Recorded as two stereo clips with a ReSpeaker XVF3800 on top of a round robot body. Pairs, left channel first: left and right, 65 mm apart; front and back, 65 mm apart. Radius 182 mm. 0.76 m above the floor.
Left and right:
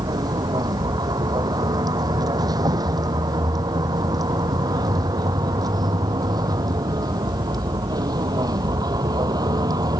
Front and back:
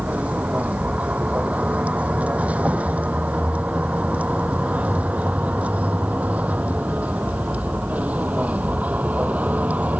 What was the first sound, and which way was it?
A vehicle, 110° right.